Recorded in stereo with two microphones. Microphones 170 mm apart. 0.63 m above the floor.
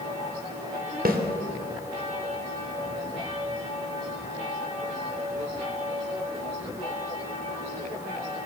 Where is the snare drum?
60° right (ahead or behind), 2.5 m.